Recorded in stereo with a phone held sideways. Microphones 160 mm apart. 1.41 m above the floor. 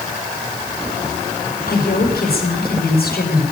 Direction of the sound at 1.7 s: 80° left.